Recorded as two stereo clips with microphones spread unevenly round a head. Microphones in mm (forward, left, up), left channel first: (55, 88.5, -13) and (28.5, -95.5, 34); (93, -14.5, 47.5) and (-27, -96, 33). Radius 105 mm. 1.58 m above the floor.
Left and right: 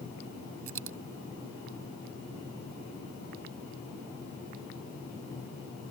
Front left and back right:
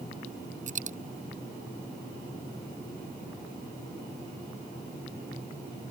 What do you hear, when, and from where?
0.7 s a dropped coin: 110° right